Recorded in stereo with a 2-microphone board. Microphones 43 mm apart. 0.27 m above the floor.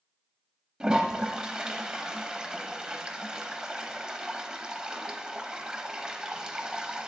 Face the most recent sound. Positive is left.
turn(degrees=-15)  # may be behind; listen again after turning